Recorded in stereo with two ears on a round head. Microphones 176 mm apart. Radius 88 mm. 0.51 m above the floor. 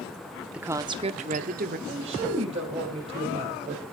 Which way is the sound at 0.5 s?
5° right (ahead or behind).